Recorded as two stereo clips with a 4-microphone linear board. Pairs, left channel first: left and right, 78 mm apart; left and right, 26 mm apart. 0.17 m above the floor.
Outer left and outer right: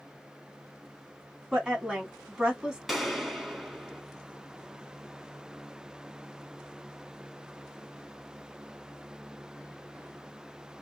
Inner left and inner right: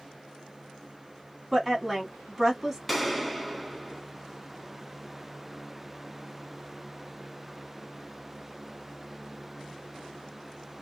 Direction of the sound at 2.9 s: Centre (ahead or behind).